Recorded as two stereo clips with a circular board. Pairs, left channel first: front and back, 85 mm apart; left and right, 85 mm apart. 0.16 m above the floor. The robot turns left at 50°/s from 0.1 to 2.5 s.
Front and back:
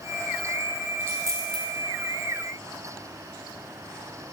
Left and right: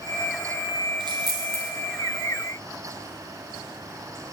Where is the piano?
No piano in this recording.